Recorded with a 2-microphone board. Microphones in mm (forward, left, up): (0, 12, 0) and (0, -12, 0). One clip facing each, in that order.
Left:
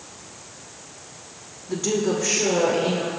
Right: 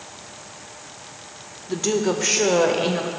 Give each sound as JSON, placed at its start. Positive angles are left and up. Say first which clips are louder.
{"t": 1.7, "sound": "a woman speaking", "louder": "right 1 dB", "side_deg": -20, "distance_m": 0.7}